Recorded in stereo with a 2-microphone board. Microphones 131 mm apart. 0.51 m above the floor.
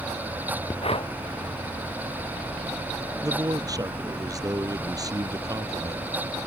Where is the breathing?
45° left (ahead or behind).